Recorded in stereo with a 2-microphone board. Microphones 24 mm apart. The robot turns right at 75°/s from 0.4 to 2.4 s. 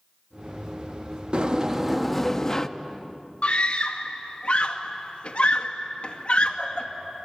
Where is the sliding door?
55° right, 0.8 m; by 2.7 s 25° left, 0.8 m.